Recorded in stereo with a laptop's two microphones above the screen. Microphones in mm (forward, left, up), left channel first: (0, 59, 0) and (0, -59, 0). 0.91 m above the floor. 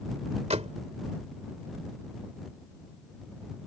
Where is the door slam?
70° right (ahead or behind).